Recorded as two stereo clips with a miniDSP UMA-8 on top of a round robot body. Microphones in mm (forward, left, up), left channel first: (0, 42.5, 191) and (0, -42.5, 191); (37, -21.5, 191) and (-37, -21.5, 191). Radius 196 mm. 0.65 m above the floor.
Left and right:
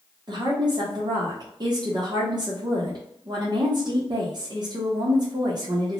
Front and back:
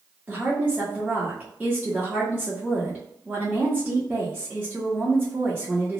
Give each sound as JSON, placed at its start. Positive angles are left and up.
{"t": 0.3, "sound": "a woman speaking", "azimuth_deg": -110, "distance_m": 1.1}